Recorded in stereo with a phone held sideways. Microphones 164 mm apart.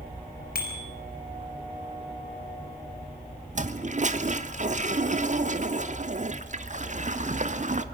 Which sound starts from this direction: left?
A bicycle bell, at 0.6 s.